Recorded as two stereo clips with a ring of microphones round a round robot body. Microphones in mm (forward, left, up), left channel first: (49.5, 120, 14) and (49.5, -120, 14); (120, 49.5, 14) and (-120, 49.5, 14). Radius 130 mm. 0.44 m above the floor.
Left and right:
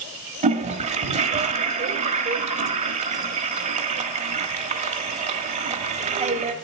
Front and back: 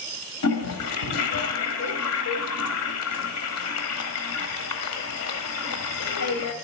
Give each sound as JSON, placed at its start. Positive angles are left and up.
{"t": 0.4, "sound": "a toilet flushing", "azimuth_deg": -30, "distance_m": 1.3}